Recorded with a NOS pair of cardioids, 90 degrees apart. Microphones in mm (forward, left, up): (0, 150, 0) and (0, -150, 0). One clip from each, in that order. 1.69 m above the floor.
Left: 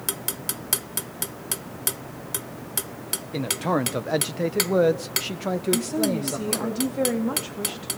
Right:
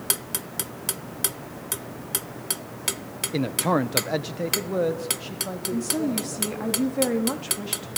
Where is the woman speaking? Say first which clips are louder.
Even; 5° right, 4 m.